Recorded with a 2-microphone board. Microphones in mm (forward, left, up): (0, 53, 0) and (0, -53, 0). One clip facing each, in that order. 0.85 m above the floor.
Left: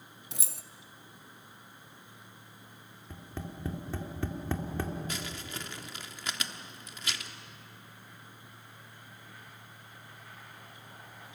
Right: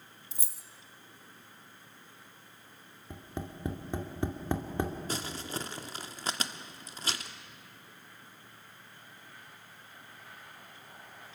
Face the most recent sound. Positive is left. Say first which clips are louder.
# right 3 dB
turn(degrees=-35)  # may be behind; listen again after turning